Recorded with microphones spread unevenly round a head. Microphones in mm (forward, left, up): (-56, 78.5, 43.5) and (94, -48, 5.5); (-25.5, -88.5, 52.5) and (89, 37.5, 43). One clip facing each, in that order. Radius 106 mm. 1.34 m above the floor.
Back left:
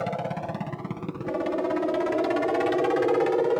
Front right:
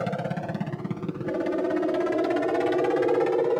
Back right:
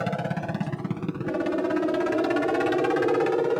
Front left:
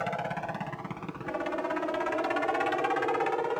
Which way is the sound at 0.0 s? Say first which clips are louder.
Front right 1 dB, back right 4 dB; 105° right.